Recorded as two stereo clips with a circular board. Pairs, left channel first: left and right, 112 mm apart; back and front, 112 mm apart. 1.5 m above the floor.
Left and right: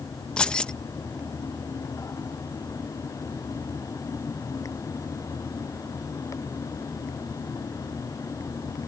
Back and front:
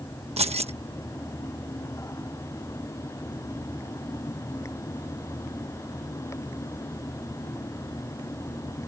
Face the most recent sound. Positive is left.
turn(degrees=10)